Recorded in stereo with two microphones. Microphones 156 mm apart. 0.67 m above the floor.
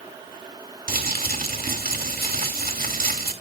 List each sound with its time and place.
0.9 s crumpling: 65° right (ahead or behind), 2 m